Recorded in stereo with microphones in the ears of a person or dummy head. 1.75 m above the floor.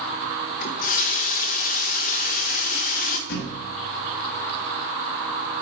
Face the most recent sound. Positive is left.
turn(degrees=60)  # may be behind; listen again after turning